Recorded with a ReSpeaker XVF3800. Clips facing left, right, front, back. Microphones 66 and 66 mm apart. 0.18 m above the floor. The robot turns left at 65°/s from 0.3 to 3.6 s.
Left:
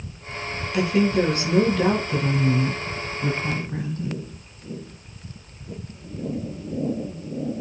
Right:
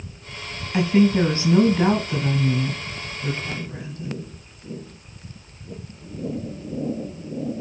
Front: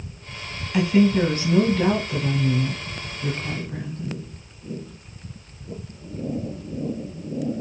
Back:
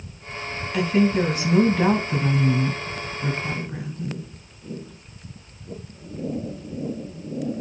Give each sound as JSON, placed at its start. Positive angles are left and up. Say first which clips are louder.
{"t": 0.7, "sound": "a woman speaking", "louder": "right 2 dB, front 2 dB", "azimuth_deg": -70, "distance_m": 1.5}